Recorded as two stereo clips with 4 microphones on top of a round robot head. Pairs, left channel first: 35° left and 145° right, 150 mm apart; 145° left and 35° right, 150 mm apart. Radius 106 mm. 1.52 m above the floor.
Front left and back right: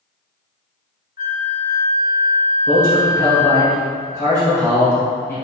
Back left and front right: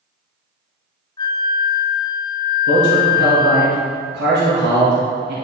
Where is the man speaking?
40° right, 1.7 m.